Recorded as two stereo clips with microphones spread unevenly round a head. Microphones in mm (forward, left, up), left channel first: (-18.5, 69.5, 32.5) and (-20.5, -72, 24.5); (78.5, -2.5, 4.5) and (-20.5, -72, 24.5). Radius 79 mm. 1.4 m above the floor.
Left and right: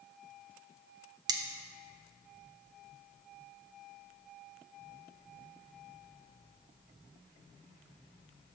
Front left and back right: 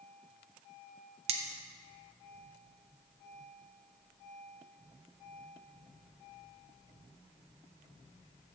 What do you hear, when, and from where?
1.3 s cutlery clinking: 150° right, 0.8 m